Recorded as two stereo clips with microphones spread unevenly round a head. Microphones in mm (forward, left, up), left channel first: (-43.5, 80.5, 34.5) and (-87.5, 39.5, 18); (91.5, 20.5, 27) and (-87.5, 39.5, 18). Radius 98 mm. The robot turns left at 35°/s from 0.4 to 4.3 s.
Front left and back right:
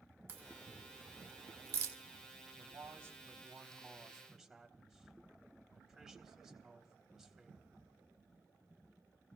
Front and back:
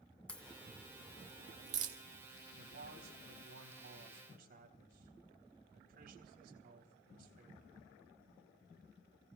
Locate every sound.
0.3 s a crack: 90° right, 1.9 m; by 2.0 s 145° right, 1.9 m
2.6 s a man speaking: 155° right, 4 m; by 7.8 s 140° left, 4 m